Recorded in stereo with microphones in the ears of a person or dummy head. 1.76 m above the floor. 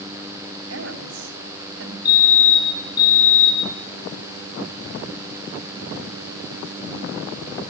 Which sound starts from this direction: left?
A fire alarm, at 2.0 s.